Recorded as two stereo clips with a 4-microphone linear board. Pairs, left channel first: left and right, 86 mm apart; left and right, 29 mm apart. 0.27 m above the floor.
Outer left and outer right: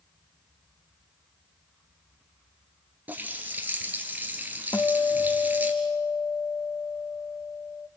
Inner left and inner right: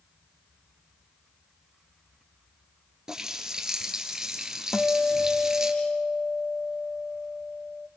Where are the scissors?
No scissors in this recording.